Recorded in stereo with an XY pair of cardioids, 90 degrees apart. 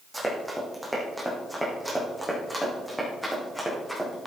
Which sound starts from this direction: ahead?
Running footsteps, at 0.1 s.